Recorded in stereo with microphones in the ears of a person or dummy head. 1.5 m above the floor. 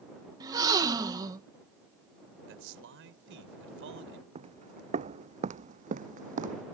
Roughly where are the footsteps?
Right.